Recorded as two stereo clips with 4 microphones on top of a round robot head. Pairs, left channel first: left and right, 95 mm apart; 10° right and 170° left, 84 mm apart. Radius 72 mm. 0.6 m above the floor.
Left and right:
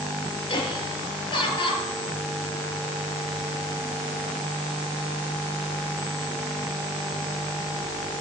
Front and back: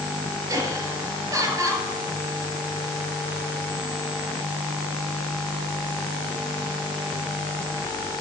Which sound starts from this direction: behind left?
Laughter, at 0.5 s.